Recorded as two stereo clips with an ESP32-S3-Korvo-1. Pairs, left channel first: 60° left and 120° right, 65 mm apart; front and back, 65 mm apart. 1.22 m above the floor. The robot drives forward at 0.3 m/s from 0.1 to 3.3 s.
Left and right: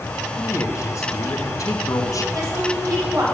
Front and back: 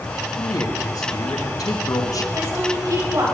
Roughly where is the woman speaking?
Behind right.